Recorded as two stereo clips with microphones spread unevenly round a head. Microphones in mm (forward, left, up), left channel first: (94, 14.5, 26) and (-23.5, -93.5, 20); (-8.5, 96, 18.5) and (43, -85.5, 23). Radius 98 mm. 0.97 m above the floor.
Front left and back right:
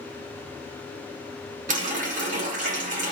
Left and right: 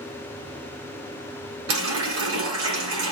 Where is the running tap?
95° right, 1.3 m.